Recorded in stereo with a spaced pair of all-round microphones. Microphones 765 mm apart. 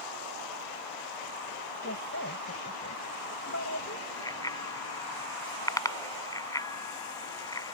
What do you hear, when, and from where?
1.8 s a woman speaking: 20° left (ahead or behind)
4.2 s a bicycle bell: 5° left (ahead or behind)